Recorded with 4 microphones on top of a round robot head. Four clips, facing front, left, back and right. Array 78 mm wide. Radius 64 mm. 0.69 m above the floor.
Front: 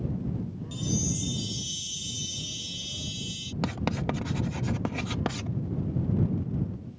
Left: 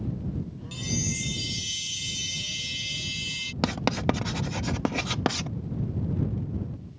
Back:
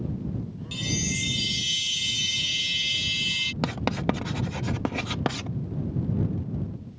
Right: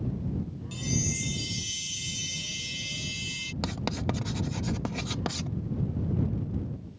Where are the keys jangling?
I don't hear keys jangling.